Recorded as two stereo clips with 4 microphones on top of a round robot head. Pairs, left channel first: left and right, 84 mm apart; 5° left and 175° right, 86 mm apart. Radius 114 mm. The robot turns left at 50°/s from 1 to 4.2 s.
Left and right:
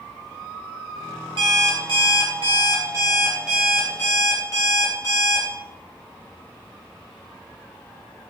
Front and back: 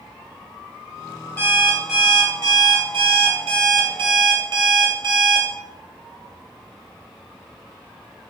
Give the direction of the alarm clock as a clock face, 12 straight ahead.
2 o'clock.